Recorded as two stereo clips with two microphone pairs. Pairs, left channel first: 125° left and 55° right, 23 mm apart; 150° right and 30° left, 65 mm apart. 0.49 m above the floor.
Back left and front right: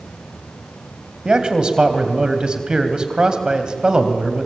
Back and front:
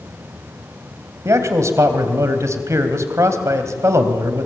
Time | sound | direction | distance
1.2 | a man speaking | 5° right | 3 m